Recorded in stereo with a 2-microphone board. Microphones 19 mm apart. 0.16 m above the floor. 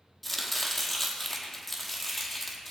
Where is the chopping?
10° left (ahead or behind), 1.7 m.